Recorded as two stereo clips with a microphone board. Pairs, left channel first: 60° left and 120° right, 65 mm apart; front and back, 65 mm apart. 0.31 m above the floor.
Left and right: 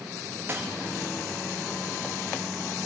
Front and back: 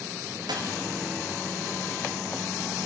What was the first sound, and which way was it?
A dropped coin, straight behind.